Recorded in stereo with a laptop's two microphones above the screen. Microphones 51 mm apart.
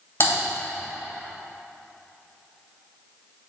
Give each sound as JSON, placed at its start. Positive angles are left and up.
{"t": 0.2, "sound": "typing on a keyboard", "side_deg": 50, "distance_m": 2.5}